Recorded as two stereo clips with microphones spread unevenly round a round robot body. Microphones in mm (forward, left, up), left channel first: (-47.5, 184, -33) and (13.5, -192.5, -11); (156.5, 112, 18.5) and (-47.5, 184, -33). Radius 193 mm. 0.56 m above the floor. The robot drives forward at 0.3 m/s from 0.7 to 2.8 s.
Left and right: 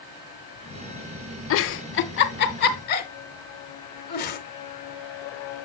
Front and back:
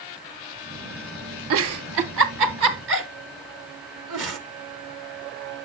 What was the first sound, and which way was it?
A giggle, 155° left.